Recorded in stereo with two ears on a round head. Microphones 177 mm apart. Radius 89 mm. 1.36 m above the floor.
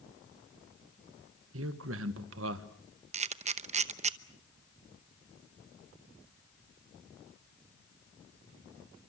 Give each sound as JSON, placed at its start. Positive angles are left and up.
{"t": 1.5, "sound": "a man speaking", "side_deg": -70, "distance_m": 1.7}
{"t": 3.1, "sound": "a camera shutter", "side_deg": -35, "distance_m": 0.9}